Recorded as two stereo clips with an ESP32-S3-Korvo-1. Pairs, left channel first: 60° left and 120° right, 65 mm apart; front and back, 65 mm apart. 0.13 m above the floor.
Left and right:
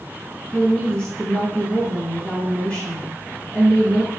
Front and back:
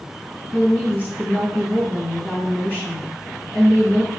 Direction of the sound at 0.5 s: 15° left.